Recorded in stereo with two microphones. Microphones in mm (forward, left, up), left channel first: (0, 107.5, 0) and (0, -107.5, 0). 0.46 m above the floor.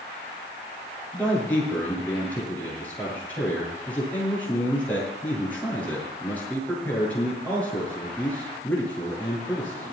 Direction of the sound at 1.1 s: 10° left (ahead or behind).